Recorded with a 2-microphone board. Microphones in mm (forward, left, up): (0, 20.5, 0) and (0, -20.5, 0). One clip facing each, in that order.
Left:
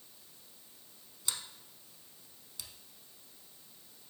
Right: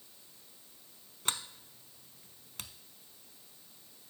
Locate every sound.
1.2 s a sliding door: 50° right (ahead or behind), 0.6 m